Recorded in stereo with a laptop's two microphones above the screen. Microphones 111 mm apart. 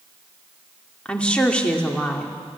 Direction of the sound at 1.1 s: 10° left (ahead or behind).